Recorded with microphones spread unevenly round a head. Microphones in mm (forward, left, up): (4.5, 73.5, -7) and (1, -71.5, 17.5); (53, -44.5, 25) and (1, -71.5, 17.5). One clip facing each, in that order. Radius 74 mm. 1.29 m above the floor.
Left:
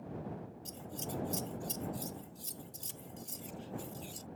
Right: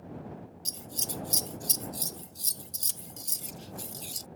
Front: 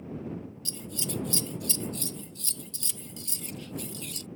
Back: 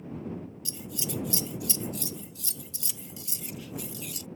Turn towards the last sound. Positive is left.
turn(degrees=-65)